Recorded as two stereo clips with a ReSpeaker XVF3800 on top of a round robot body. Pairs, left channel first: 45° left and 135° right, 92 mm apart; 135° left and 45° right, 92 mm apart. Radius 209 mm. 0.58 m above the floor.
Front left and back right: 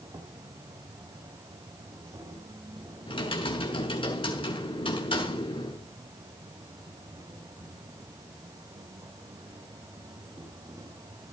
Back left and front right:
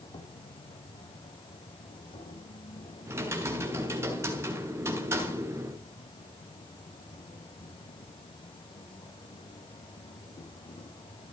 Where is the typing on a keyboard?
20° left, 6 m.